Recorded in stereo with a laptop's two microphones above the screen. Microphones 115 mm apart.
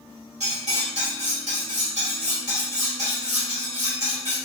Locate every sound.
0.4 s cutlery clinking: 75° right (ahead or behind), 1.4 m